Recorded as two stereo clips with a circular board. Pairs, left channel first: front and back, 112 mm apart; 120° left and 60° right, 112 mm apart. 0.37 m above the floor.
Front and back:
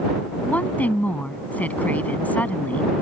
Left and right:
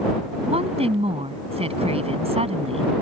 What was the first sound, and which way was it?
A woman speaking, 75° right.